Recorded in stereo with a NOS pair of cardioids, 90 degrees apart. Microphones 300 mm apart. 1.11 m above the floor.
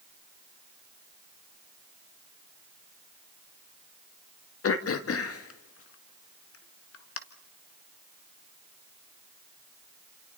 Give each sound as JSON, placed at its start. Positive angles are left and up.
{"t": 4.6, "sound": "throat clearing", "azimuth_deg": 50, "distance_m": 1.8}